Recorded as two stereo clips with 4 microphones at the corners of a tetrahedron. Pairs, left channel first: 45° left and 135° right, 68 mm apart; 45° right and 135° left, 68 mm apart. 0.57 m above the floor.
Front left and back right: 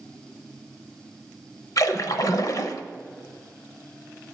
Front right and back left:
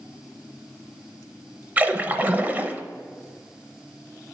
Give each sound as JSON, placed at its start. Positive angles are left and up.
{"t": 1.8, "sound": "a splash", "azimuth_deg": 70, "distance_m": 0.6}